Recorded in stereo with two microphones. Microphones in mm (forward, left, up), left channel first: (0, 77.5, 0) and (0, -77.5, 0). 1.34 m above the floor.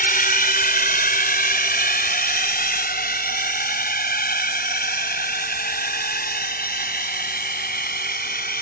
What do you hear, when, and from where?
0.0 s a drone: 70° left (ahead or behind); by 8.6 s 85° left